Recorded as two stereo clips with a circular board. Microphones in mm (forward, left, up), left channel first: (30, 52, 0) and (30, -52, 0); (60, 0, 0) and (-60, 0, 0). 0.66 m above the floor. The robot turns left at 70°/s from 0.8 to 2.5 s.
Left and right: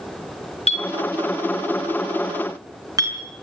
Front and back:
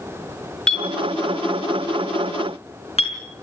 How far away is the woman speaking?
No woman speaking in this recording.